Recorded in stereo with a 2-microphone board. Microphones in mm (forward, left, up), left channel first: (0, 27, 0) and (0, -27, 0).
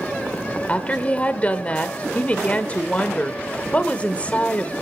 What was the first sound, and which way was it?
A woman speaking, 25° left (ahead or behind).